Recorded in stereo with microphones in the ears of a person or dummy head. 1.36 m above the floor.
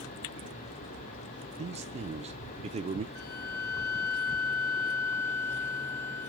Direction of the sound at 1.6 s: 30° right (ahead or behind).